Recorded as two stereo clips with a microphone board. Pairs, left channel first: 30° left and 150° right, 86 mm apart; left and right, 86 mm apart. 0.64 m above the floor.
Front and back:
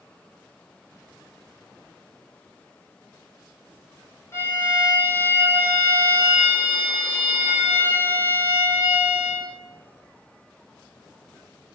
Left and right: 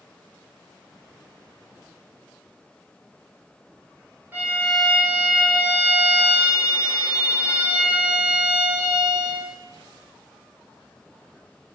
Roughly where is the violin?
Ahead right.